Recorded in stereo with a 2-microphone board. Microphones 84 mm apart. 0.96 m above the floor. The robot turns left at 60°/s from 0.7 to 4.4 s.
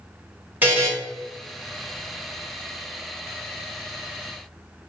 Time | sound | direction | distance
0.6 | a buzzer | 20° right (ahead or behind) | 1.1 m